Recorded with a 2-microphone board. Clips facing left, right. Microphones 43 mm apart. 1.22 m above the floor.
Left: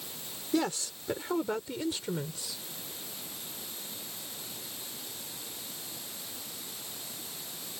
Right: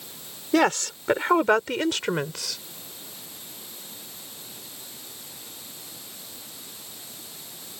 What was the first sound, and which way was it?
A woman speaking, 70° right (ahead or behind).